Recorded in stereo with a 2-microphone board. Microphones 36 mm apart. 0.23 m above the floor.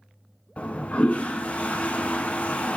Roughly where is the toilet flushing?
Left.